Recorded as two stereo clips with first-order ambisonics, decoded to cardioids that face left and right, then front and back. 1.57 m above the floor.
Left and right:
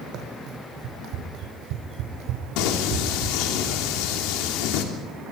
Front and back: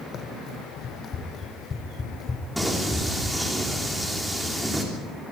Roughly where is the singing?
Left.